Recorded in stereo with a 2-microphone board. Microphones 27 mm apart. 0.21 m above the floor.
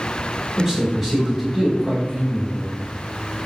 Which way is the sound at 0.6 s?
15° right (ahead or behind).